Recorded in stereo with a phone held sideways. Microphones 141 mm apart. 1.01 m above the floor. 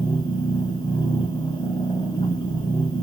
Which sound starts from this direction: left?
A machine running, at 0.0 s.